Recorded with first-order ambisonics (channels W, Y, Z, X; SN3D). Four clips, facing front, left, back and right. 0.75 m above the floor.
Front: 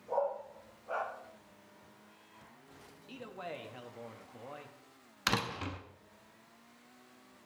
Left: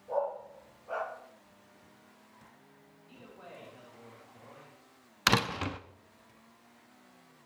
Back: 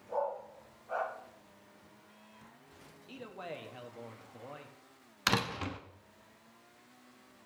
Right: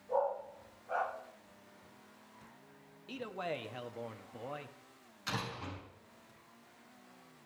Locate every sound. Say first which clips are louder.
0.1 s a dog barking: left 1 dB, front 2 dB; 55° left, 7 m
3.1 s a man speaking: right 11 dB, even; 90° right, 0.9 m
5.3 s a door slam: left 12 dB, back 2 dB; 100° left, 0.7 m